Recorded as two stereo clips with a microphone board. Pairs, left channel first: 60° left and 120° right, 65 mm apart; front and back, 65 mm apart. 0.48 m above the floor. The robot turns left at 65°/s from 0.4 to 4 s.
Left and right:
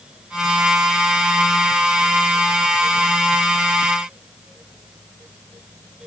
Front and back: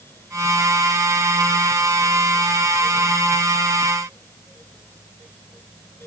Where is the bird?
I don't hear a bird.